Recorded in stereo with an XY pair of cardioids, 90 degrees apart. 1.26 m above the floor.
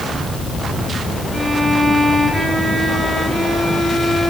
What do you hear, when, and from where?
1.3 s a violin: 25° right, 6 m